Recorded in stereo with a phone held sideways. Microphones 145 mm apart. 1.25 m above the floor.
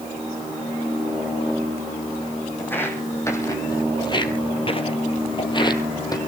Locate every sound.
2.6 s footsteps: 15° left (ahead or behind), 3.5 m; by 6.2 s 25° left (ahead or behind), 2.5 m